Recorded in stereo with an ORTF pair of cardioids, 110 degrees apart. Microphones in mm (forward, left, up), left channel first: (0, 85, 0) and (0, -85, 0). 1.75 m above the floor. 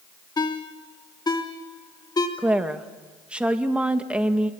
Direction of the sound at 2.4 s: 5° right.